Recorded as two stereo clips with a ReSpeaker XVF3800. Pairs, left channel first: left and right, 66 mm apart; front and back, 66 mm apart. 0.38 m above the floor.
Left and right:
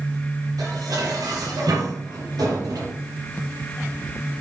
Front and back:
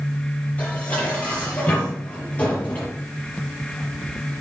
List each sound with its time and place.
0.6 s dishes clattering: 65° right, 6.5 m